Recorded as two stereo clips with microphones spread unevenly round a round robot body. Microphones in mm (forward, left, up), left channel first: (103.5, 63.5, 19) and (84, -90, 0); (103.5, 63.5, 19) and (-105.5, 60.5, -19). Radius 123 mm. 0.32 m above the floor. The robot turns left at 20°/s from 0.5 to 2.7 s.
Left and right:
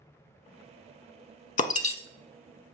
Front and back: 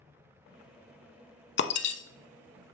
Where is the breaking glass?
40° left, 0.7 m; by 2.0 s 30° left, 0.7 m.